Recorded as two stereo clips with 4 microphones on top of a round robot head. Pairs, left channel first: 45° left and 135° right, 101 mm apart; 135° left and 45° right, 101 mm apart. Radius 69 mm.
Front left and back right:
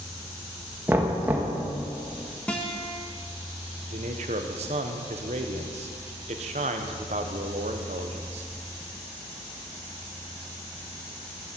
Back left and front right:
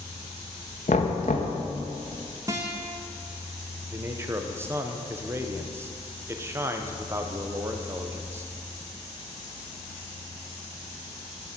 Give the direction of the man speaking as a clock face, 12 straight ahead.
4 o'clock.